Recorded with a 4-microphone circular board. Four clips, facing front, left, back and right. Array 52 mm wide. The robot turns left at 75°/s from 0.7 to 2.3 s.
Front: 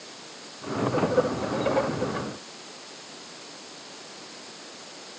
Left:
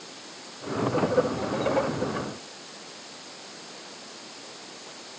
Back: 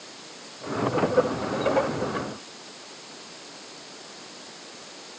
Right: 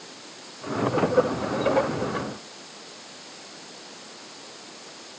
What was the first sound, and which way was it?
Only background noise.